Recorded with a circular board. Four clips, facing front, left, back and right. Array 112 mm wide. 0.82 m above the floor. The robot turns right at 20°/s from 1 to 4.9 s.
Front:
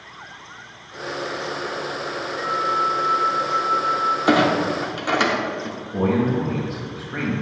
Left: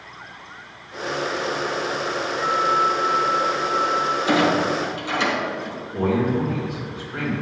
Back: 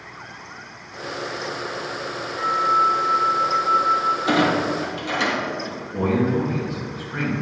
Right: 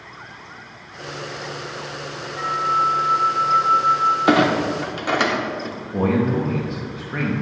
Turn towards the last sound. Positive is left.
turn(degrees=-70)